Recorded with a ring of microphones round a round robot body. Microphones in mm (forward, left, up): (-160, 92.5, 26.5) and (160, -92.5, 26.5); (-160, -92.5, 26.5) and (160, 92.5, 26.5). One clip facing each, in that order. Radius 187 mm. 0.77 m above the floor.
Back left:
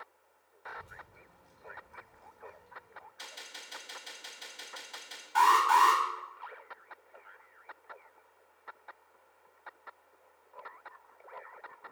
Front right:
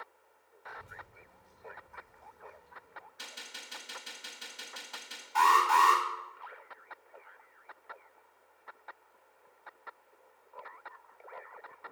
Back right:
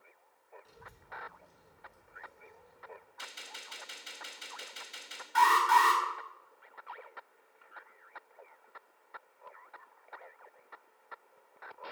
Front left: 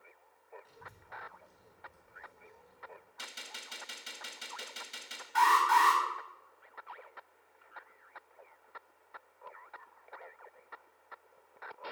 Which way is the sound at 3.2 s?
40° left.